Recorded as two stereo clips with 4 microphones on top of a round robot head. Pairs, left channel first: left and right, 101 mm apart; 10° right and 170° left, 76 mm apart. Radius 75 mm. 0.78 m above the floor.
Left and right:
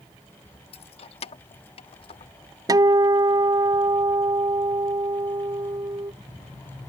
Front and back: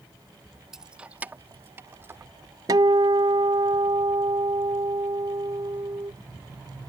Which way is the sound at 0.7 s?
90° left.